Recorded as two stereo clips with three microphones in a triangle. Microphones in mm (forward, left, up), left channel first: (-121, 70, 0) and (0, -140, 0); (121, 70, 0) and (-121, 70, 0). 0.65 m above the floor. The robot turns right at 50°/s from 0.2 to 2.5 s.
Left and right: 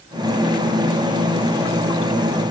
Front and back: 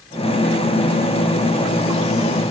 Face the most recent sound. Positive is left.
No sound to turn to.